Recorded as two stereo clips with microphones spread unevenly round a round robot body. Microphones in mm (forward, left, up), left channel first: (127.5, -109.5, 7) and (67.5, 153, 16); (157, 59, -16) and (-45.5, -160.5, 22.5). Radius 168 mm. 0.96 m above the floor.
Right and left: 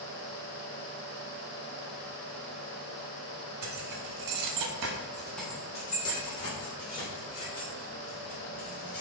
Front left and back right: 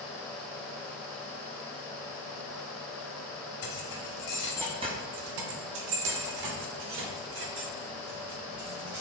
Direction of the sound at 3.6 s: 85° left.